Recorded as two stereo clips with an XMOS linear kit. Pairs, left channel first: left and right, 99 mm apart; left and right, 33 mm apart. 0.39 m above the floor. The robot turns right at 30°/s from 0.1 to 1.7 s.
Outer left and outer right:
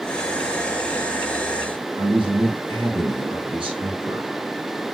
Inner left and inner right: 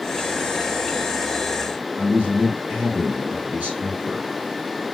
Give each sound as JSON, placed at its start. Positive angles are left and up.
{"t": 2.0, "sound": "a man speaking", "side_deg": -60, "distance_m": 4.5}